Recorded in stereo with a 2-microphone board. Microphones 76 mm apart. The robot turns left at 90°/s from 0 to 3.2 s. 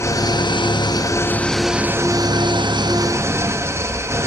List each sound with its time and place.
0.0 s an engine running: 145° left, 1.1 m; by 4.3 s 140° right, 1.1 m